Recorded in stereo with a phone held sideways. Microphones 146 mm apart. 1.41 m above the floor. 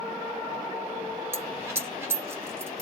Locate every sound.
1.3 s a dropped coin: 15° right (ahead or behind), 1.3 m